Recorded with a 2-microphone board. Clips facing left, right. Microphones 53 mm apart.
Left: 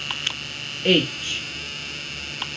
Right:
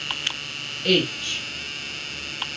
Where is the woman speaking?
25° left (ahead or behind), 1.3 m.